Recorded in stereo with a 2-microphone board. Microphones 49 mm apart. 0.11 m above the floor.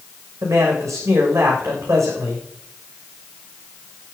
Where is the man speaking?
80° right, 7.5 m.